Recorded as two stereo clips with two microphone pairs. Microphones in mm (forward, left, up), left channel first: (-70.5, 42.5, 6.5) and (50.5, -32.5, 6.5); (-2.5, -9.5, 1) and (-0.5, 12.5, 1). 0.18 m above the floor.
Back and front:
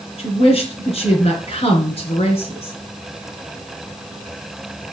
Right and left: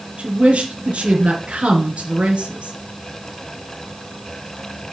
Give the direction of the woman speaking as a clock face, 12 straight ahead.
8 o'clock.